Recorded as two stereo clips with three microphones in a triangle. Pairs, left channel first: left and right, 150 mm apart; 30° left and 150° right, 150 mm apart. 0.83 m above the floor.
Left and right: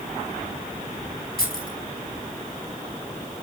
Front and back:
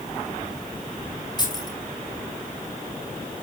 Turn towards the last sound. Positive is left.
turn(degrees=90)